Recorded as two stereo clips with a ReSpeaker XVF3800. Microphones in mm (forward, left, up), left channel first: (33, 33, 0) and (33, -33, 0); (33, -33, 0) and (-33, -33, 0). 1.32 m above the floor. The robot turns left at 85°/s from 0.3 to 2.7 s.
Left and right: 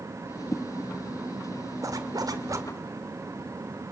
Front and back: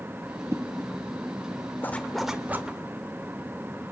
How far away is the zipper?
About 1.7 m.